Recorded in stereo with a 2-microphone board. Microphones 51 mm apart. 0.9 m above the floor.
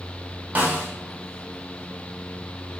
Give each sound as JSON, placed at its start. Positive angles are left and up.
{"t": 0.6, "sound": "a snare drum", "side_deg": -35, "distance_m": 1.1}